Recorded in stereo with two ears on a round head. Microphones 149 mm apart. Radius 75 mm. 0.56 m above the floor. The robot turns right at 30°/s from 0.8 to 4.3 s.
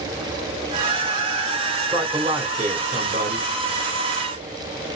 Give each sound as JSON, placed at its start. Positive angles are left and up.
{"t": 1.8, "sound": "a man speaking", "azimuth_deg": -160, "distance_m": 1.8}